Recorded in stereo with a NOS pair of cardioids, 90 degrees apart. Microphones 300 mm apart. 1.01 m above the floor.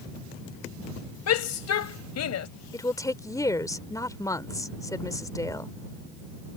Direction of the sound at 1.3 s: 65° left.